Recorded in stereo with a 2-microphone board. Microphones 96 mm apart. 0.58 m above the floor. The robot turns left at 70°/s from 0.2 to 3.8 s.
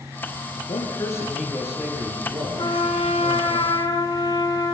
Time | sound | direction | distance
0.7 | a man speaking | 65° left | 7.5 m
2.6 | a trumpet | 130° left | 4 m